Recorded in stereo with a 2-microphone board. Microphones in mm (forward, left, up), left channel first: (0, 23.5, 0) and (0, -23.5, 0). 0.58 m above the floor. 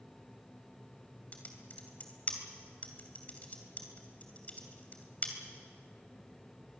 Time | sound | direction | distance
1.3 | typing on a keyboard | 35° left (ahead or behind) | 2.5 m